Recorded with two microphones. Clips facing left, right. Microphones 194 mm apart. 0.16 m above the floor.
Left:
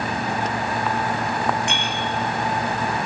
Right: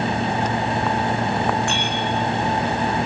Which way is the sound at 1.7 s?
20° left (ahead or behind).